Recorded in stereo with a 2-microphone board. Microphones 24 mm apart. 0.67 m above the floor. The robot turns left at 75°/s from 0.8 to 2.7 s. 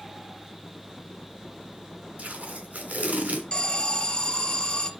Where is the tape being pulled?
75° right, 3 m; by 3.4 s 115° right, 3 m.